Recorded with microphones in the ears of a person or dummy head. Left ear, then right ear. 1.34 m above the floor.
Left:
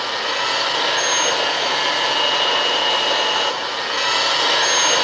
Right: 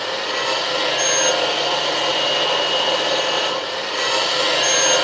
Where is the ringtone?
No ringtone in this recording.